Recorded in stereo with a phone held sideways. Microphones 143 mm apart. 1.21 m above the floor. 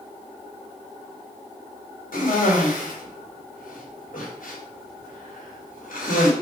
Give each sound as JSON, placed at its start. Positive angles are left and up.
{"t": 2.1, "sound": "a cough", "side_deg": 70, "distance_m": 3.5}